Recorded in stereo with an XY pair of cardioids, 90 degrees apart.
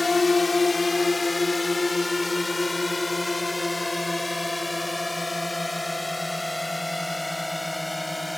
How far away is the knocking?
No knocking in this recording.